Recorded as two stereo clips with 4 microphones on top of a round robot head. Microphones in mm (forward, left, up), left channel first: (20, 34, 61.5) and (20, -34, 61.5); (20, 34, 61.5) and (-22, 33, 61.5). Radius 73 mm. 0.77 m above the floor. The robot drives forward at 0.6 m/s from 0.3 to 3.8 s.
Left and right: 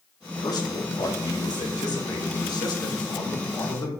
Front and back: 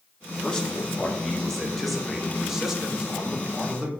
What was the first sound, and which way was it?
A man speaking, 70° left.